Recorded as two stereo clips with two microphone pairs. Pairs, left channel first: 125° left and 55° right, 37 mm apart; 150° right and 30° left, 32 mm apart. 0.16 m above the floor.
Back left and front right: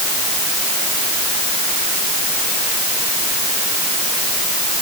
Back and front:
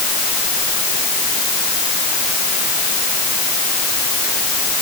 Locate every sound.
Only background noise.